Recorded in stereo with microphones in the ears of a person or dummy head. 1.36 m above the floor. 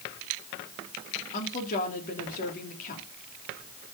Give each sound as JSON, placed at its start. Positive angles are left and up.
{"t": 1.3, "sound": "a woman speaking", "side_deg": 45, "distance_m": 3.0}